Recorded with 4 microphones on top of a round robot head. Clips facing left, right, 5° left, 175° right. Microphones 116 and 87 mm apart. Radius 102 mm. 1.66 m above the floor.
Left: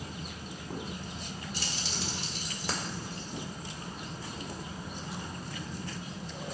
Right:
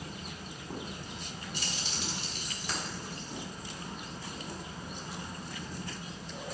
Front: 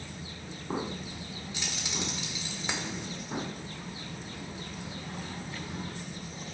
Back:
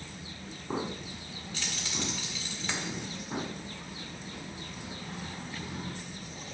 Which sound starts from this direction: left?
Keys jangling, at 1.5 s.